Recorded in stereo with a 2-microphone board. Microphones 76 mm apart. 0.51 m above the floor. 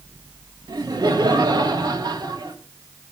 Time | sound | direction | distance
0.7 | laughter | 65° right (ahead or behind) | 2 m